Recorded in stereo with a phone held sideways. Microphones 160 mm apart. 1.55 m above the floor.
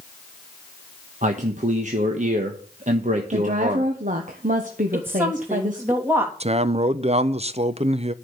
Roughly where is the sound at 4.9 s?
Centre.